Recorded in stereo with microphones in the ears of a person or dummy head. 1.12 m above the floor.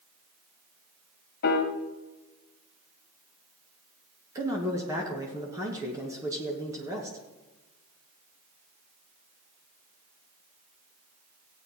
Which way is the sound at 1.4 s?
60° left (ahead or behind).